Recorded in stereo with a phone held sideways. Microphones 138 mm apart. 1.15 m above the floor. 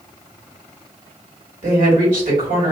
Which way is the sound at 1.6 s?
65° right (ahead or behind).